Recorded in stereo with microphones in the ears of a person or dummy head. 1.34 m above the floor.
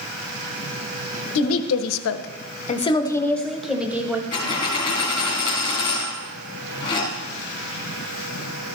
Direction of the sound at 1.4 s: 70° left (ahead or behind).